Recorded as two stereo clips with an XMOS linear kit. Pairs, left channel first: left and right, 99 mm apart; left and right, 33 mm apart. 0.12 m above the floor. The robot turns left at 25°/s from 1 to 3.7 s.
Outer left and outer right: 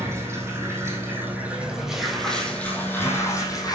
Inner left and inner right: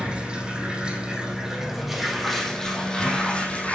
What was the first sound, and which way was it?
Running water, 150° right.